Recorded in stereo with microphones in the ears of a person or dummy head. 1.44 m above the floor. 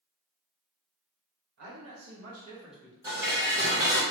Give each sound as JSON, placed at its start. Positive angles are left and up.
{"t": 1.6, "sound": "a man speaking", "side_deg": -70, "distance_m": 1.4}
{"t": 3.0, "sound": "dishes clattering", "side_deg": -15, "distance_m": 1.2}